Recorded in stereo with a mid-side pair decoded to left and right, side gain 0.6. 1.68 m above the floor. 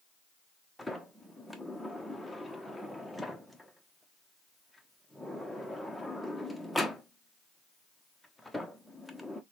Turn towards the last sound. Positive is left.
turn(degrees=5)